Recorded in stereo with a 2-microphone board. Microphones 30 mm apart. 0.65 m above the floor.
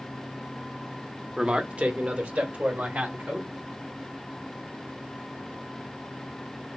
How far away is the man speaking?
About 0.7 m.